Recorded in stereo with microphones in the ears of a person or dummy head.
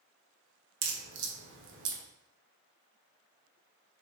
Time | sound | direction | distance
0.8 | a crack | 55° right (ahead or behind) | 1.0 m